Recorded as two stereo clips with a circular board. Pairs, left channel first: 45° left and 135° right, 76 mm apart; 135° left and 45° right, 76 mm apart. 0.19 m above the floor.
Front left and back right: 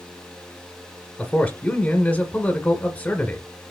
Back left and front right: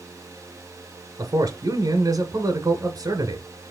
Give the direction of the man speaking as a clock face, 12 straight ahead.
1 o'clock.